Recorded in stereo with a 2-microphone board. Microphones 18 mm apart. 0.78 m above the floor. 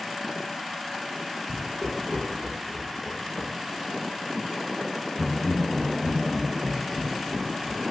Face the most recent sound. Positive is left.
turn(degrees=5)  # may be behind; listen again after turning